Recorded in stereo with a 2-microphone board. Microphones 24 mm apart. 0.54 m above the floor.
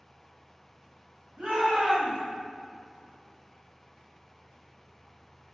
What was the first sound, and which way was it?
A shout, 65° right (ahead or behind).